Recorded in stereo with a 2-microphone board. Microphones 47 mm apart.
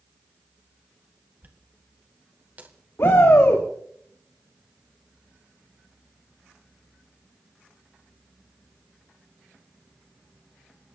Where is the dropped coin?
35° right (ahead or behind), 1.9 m.